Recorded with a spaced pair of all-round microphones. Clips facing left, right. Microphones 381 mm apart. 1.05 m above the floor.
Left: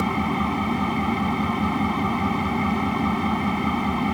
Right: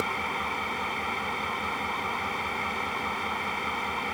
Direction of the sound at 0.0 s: 70° left (ahead or behind).